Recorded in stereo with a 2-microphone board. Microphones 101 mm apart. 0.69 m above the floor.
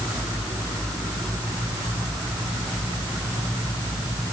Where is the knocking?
No knocking in this recording.